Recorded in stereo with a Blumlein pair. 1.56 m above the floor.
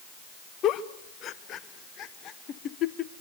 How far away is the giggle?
About 1.0 m.